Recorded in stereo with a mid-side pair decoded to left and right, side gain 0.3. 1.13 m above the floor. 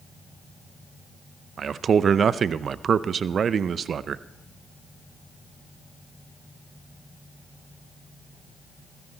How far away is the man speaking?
About 0.6 m.